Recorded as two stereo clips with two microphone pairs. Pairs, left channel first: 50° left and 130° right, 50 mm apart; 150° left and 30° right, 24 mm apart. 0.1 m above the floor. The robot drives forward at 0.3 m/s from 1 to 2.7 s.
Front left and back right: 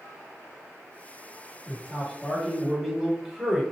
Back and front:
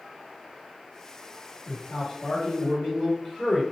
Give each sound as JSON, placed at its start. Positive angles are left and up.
{"t": 1.7, "sound": "a man speaking", "azimuth_deg": 135, "distance_m": 1.8}